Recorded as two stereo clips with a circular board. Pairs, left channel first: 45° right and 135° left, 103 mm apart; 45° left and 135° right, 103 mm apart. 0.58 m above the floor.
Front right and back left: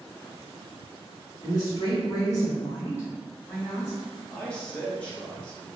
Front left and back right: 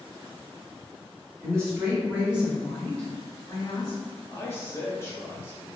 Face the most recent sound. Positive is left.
turn(degrees=20)